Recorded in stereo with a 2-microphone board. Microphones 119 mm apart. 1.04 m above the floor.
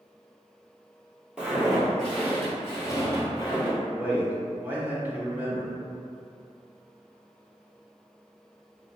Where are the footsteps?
10° right (ahead or behind), 1.6 m; by 3.7 s 40° left (ahead or behind), 1.8 m.